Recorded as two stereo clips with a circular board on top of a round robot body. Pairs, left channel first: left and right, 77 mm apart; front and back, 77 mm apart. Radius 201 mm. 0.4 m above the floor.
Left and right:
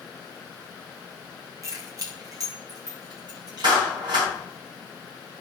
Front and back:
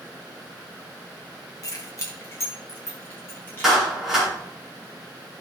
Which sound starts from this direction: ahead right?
Keys jangling, at 1.6 s.